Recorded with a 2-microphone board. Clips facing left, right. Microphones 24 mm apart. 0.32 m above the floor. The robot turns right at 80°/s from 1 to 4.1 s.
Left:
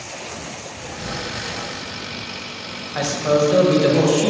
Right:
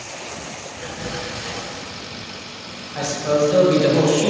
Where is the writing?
85° right, 0.9 m; by 1.7 s 30° right, 0.9 m.